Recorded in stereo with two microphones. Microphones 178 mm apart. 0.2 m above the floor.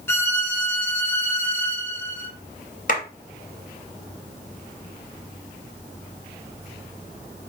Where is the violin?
10° left (ahead or behind), 0.9 m.